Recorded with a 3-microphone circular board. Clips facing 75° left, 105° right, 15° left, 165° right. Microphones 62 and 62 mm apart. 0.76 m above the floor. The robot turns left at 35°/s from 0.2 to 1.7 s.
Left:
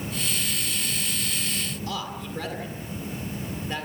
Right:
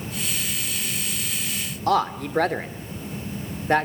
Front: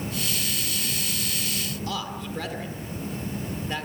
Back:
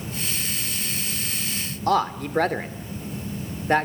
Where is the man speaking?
130° right, 2.0 m.